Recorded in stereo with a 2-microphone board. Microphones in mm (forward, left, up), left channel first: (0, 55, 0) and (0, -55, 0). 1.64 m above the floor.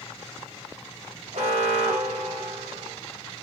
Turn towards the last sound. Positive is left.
turn(degrees=-80)